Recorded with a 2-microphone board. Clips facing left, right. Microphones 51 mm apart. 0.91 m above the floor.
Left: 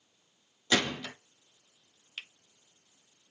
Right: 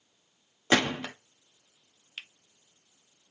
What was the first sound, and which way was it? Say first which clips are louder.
A gunshot: right 4 dB; 40° right (ahead or behind).